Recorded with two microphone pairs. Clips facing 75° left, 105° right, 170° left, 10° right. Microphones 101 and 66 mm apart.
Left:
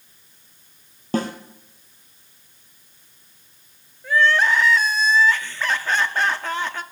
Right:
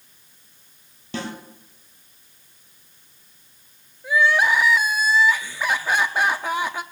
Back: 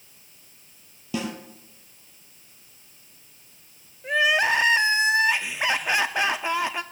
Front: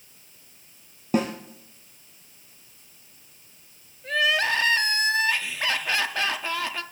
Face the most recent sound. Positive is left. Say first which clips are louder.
# even, back 2 dB
turn(degrees=-160)